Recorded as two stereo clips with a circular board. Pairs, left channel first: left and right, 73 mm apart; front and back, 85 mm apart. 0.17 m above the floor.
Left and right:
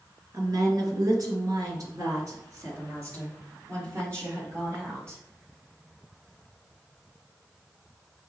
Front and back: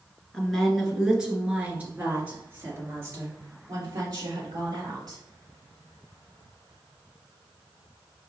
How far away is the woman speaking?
About 2 m.